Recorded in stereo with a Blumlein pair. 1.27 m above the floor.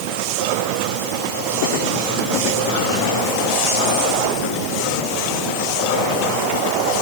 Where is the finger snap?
I don't hear a finger snap.